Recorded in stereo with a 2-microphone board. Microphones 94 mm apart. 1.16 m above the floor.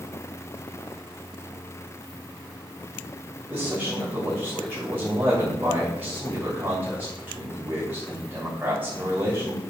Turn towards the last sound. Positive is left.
turn(degrees=-20)  # may be behind; listen again after turning